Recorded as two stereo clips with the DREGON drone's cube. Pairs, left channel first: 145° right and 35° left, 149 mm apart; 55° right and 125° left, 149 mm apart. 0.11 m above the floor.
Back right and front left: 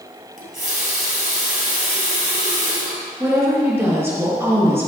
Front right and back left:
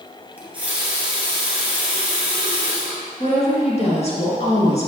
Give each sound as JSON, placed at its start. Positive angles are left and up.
{"t": 0.4, "sound": "a running tap", "azimuth_deg": 45, "distance_m": 2.5}
{"t": 3.2, "sound": "a woman speaking", "azimuth_deg": -35, "distance_m": 2.5}